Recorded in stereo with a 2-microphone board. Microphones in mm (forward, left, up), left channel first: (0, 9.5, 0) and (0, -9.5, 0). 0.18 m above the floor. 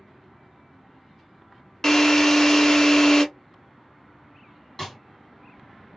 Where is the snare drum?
20° left (ahead or behind), 1.9 m.